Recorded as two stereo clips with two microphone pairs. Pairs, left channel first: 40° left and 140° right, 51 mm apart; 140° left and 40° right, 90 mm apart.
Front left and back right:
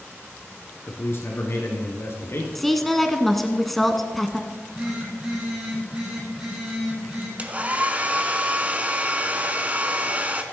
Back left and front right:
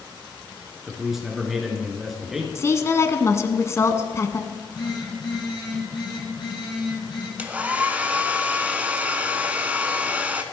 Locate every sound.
0.9 s a man speaking: 45° left, 3 m
2.5 s a woman speaking: 125° left, 1.2 m
4.5 s a phone buzzing: 155° left, 6 m
7.4 s a hair dryer: 105° right, 1.2 m